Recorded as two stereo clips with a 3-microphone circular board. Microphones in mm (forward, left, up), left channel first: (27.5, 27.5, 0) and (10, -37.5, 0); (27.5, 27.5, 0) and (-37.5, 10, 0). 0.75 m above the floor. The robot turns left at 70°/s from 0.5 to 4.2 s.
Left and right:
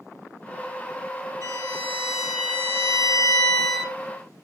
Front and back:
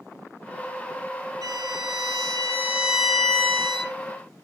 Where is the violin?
145° right, 3.5 m; by 4.0 s 35° left, 3.5 m.